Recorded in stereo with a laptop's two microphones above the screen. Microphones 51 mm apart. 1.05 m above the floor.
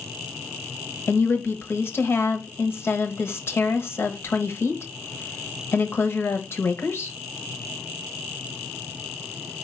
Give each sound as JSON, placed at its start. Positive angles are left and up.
{"t": 1.1, "sound": "a woman speaking", "side_deg": 45, "distance_m": 0.8}